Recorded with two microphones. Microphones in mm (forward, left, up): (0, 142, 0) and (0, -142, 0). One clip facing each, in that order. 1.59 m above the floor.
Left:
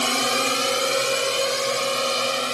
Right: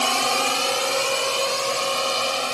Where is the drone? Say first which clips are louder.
Left 1 dB; 20° left (ahead or behind).